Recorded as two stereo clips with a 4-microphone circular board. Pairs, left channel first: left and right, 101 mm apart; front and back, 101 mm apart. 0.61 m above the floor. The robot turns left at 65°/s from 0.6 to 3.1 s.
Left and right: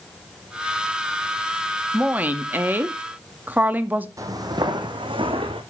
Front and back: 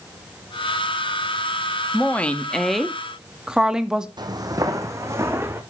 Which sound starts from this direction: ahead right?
A woman speaking, at 1.9 s.